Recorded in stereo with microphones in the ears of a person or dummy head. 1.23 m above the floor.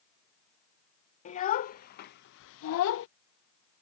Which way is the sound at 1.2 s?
40° left (ahead or behind).